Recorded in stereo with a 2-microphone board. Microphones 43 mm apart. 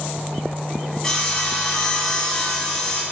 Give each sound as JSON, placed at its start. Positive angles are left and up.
{"t": 1.0, "sound": "sawing", "side_deg": 15, "distance_m": 1.4}